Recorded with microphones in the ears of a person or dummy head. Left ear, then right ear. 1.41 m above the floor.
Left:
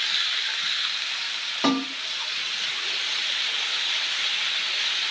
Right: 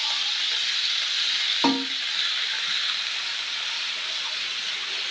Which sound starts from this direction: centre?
A snare drum, at 1.6 s.